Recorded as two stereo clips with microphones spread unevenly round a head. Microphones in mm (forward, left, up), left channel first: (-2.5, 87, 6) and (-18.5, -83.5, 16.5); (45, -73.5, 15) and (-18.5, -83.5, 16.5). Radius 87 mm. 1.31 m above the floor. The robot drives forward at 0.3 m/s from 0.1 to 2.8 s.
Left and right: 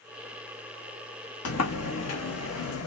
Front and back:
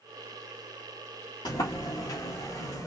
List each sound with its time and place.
1.4 s a sliding door: 70° left, 1.3 m; by 2.9 s 90° left, 1.2 m